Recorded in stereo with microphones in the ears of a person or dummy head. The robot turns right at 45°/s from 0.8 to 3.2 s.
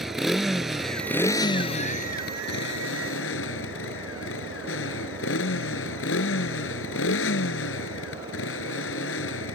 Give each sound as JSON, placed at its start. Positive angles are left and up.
{"t": 0.0, "sound": "a motorcycle", "azimuth_deg": -5}